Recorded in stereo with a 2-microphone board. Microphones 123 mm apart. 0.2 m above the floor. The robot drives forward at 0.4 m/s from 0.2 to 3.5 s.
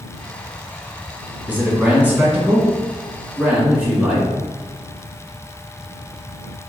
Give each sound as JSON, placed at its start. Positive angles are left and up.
{"t": 1.5, "sound": "a man speaking", "side_deg": -15, "distance_m": 1.7}